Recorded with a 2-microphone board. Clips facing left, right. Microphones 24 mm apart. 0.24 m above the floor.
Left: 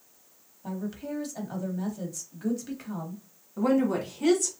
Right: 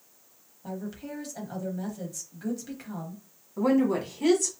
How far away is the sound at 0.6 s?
About 1.0 m.